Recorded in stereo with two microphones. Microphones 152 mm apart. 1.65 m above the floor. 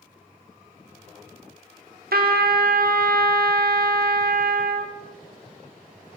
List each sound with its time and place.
2.1 s a trumpet: 85° right, 0.7 m